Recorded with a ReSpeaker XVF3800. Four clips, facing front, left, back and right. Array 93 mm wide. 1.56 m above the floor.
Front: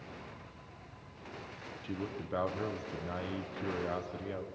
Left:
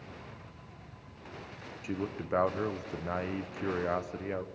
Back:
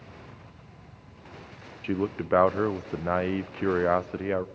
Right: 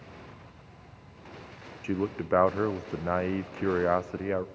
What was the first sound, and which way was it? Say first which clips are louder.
A man speaking: right 6 dB, back 12 dB; 150° right.